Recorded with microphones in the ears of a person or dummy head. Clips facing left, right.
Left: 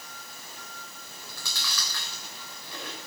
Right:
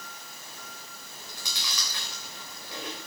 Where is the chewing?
15° right (ahead or behind), 3.5 m.